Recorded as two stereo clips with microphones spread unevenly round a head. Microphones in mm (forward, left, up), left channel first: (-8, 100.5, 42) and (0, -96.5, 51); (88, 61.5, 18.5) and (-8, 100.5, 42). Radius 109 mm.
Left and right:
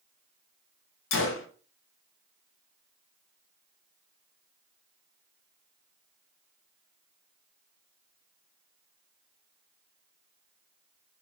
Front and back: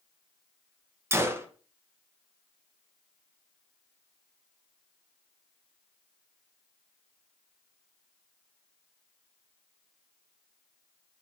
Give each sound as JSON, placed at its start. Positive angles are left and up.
{"t": 1.1, "sound": "a gunshot", "azimuth_deg": 85, "distance_m": 0.9}